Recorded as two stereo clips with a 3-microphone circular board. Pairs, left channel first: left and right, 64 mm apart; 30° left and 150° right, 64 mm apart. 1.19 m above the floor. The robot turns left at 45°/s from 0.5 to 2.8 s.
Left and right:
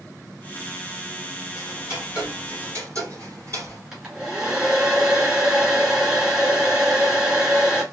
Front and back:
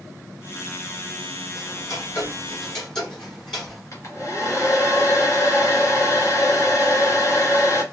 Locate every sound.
1.6 s ticking: 5° left, 3.5 m; by 3.8 s 50° right, 3.5 m
3.9 s a hair dryer: 15° right, 2 m